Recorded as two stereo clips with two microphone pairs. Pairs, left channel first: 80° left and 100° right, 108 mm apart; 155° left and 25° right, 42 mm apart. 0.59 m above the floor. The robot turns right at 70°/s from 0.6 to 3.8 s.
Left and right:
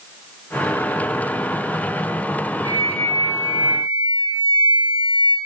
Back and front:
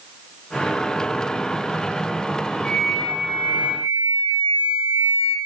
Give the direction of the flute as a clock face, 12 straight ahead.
4 o'clock.